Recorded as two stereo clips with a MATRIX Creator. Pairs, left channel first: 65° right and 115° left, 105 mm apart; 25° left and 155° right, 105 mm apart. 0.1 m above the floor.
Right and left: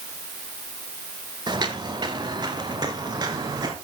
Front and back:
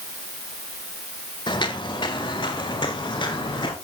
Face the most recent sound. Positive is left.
turn(degrees=65)